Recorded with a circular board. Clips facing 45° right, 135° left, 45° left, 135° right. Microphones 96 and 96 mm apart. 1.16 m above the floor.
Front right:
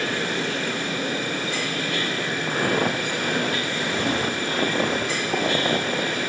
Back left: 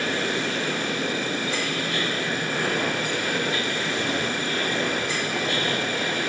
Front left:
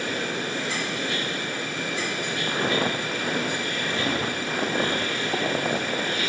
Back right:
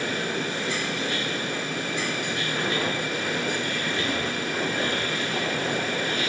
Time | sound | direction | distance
2.5 | footsteps | straight ahead | 7.5 m